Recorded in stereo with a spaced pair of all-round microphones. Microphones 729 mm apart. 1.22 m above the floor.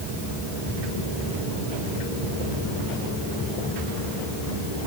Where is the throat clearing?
No throat clearing in this recording.